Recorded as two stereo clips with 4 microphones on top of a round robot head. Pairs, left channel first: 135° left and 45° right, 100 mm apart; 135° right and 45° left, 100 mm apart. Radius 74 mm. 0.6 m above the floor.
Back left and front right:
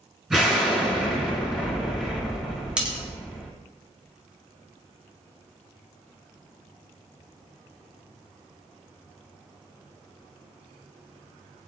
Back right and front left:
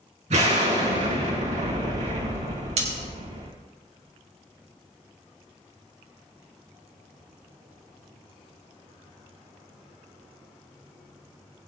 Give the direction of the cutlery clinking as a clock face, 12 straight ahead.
11 o'clock.